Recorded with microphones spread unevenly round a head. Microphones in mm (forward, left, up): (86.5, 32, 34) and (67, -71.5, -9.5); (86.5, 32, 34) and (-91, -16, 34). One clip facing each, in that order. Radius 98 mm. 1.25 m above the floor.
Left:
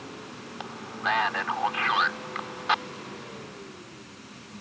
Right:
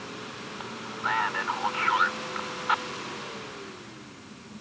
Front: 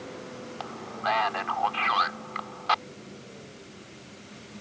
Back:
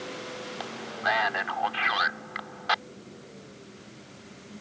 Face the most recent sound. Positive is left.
turn(degrees=120)